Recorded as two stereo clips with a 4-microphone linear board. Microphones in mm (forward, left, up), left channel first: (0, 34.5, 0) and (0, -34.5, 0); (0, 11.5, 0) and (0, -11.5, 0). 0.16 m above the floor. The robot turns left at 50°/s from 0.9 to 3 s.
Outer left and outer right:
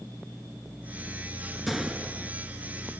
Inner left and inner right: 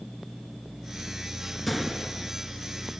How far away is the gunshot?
About 1.0 m.